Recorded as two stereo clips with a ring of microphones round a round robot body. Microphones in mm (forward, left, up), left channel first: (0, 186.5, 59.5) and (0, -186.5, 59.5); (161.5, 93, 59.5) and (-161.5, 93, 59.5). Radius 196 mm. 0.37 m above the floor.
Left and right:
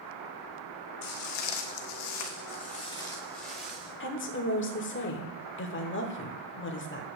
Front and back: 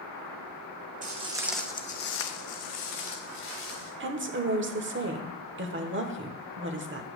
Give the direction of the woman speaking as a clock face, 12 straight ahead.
7 o'clock.